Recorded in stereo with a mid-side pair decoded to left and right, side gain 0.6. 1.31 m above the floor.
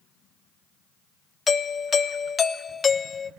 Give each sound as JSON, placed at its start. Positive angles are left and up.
{"t": 1.5, "sound": "a doorbell", "azimuth_deg": 35, "distance_m": 1.3}